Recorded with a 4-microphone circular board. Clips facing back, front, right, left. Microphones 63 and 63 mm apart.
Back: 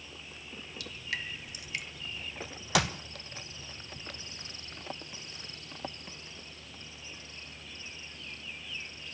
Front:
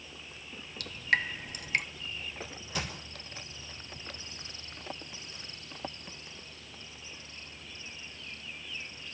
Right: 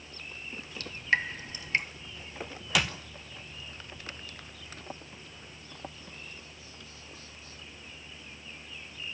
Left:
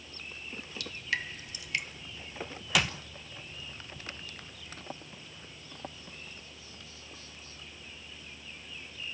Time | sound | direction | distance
0.8 | dripping | 35° right | 0.9 m
2.8 | a clap | straight behind | 1.2 m